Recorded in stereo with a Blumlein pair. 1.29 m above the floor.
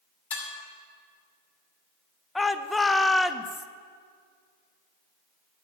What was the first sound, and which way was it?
Dishes clattering, 60° left.